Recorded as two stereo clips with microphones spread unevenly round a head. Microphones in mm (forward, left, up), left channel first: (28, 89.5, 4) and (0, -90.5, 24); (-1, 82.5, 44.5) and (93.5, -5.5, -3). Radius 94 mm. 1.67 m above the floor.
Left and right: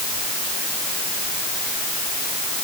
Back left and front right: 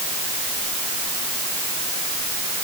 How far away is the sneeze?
I don't hear a sneeze.